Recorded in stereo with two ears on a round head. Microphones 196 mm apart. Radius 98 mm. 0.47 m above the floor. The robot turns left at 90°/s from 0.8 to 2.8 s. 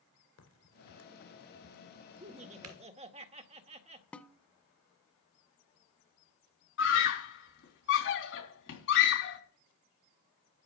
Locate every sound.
0.4 s a crack: 85° left, 2.5 m; by 2.8 s 85° right, 2.5 m
2.2 s laughter: 60° right, 1.4 m; by 4.0 s 110° right, 1.4 m
4.1 s a snare drum: 5° left (ahead or behind), 0.7 m
6.8 s a scream: 60° left (ahead or behind), 4 m